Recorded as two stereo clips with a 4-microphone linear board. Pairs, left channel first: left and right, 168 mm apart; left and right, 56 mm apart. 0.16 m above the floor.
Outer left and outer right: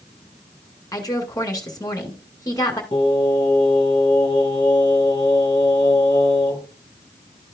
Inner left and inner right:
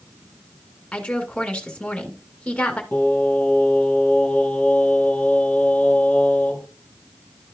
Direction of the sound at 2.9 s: 30° left (ahead or behind).